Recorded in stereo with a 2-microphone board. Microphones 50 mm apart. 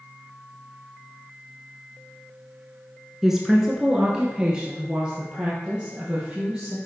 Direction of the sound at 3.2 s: 5° right (ahead or behind).